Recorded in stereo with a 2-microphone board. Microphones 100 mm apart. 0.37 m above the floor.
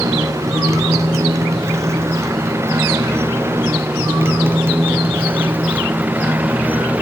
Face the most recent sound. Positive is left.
turn(degrees=-15)  # may be behind; listen again after turning